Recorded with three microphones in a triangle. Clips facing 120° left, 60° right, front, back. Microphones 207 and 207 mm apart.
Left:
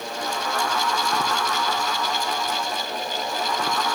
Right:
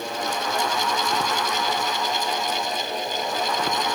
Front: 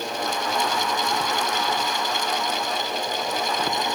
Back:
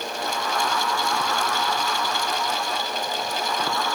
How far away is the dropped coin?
I don't hear a dropped coin.